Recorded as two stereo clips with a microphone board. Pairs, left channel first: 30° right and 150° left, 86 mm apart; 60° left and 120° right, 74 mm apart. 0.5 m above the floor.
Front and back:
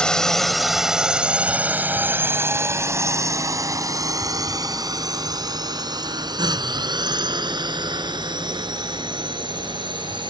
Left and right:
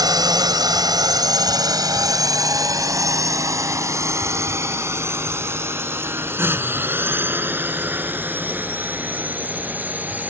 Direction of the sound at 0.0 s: 110° right.